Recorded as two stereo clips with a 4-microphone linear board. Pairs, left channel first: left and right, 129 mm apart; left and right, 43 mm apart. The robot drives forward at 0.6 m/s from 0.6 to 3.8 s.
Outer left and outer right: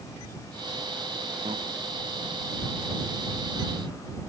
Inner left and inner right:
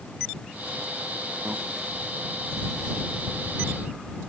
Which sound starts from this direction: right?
A microwave, at 1.4 s.